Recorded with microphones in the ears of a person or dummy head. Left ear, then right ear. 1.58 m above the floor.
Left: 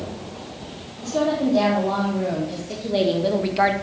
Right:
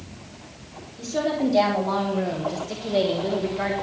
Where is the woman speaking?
35° right (ahead or behind), 3 m; by 3.7 s 50° left (ahead or behind), 1.1 m.